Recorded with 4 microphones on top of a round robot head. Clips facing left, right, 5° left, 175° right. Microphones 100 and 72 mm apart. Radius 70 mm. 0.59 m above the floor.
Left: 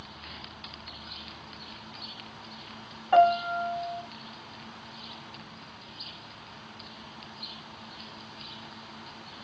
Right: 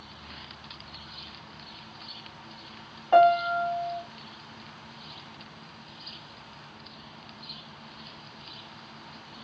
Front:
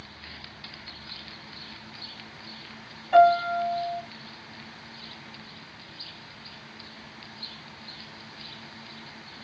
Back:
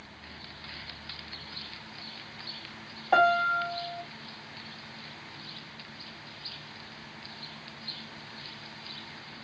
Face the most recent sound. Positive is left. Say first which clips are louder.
# right 2 dB, front 5 dB
turn(degrees=-160)